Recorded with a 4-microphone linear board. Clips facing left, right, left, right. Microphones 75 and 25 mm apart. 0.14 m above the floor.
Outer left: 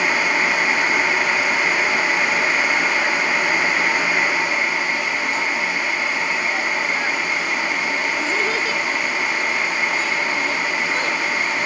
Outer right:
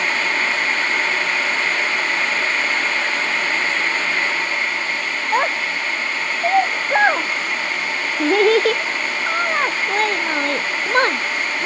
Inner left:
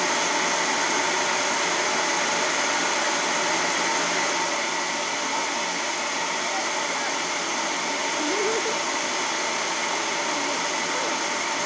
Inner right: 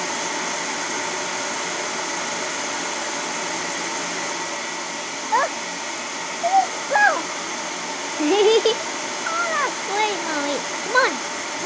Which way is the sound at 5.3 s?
60° right (ahead or behind).